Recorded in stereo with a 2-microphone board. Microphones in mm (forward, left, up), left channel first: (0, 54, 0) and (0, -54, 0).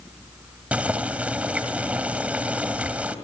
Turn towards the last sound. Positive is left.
turn(degrees=-15)  # may be behind; listen again after turning